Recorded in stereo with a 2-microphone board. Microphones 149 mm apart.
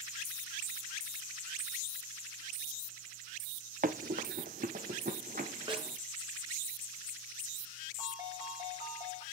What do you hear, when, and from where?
3.8 s running footsteps: 65° right (ahead or behind), 0.6 m; by 6.0 s 70° right (ahead or behind), 2.0 m
5.7 s a snare drum: 35° right (ahead or behind), 2.5 m
8.0 s a ringtone: 30° right (ahead or behind), 6.5 m